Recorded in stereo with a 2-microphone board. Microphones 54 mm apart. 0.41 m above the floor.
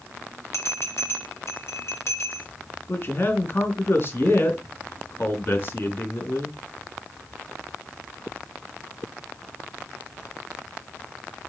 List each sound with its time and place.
0.5 s a bell: 50° left (ahead or behind), 5.5 m
2.9 s a man speaking: 40° left (ahead or behind), 4 m